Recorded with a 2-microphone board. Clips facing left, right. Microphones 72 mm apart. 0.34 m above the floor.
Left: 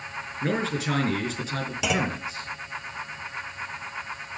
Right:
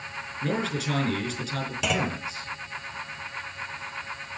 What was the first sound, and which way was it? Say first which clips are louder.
A man speaking: left 2 dB; 30° left (ahead or behind).